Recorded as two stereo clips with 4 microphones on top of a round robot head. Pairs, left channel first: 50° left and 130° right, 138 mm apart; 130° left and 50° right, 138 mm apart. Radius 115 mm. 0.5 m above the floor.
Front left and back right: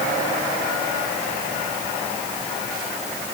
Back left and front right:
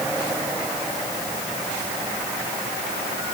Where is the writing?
No writing in this recording.